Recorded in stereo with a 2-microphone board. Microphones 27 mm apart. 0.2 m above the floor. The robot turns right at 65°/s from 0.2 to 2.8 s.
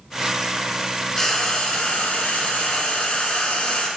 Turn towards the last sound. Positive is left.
turn(degrees=130)